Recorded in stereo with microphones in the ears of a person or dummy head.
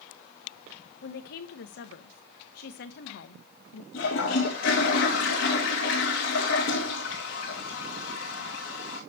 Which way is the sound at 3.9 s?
65° left (ahead or behind).